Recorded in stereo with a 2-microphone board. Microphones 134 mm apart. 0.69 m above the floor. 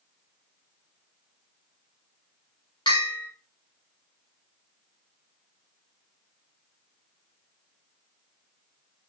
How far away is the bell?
About 1.4 m.